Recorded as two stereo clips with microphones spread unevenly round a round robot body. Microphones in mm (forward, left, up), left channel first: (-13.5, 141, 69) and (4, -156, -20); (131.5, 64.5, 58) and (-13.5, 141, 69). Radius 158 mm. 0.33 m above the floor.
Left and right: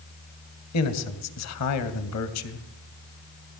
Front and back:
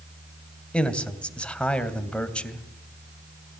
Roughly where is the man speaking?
Ahead left.